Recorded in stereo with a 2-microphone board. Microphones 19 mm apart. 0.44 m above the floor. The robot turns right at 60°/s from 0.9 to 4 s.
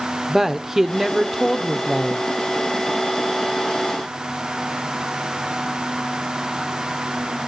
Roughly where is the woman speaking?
Right.